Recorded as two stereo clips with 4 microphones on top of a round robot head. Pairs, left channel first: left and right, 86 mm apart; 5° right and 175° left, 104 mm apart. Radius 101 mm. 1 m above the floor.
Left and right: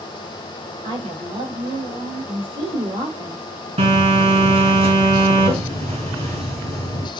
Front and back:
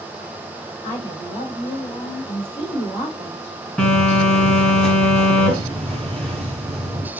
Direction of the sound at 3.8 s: 85° right.